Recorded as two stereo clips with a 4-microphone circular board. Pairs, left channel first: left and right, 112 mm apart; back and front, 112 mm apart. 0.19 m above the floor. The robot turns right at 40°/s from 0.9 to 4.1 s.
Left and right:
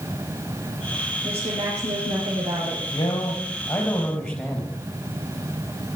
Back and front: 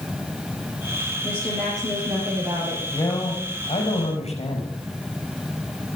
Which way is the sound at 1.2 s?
120° right.